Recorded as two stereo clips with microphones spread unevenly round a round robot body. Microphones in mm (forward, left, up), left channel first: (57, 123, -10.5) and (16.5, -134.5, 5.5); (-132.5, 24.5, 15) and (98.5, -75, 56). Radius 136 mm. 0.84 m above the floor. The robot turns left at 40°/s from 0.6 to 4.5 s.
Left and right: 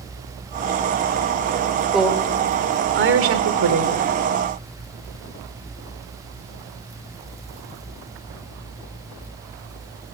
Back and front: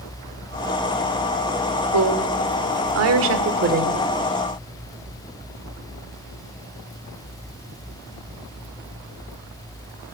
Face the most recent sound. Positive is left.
turn(degrees=-110)